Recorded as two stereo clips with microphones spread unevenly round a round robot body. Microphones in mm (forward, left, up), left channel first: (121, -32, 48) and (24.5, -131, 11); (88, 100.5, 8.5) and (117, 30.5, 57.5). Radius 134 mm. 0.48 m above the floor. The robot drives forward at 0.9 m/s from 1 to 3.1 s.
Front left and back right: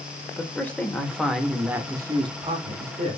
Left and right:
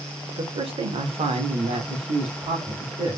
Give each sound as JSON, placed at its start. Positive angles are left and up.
{"t": 0.4, "sound": "a man speaking", "azimuth_deg": -45, "distance_m": 1.5}